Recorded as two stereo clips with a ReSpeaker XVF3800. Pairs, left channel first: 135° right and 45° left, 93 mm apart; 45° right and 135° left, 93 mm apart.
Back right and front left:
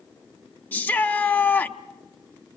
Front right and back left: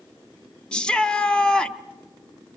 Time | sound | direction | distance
0.7 | a shout | 105° right | 0.7 m